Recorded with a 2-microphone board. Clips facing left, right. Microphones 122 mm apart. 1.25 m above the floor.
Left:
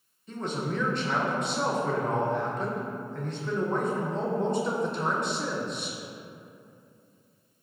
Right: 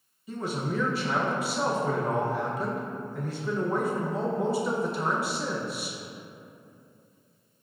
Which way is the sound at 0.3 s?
5° right (ahead or behind).